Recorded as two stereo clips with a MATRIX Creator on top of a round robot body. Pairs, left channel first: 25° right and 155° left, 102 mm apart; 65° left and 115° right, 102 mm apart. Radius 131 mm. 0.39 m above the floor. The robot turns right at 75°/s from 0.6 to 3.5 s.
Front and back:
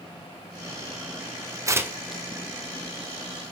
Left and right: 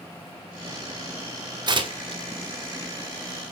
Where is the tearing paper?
150° right, 1.9 m; by 2.2 s 105° right, 1.9 m.